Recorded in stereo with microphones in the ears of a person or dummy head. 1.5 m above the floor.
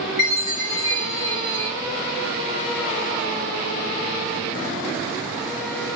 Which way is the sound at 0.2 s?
35° left (ahead or behind).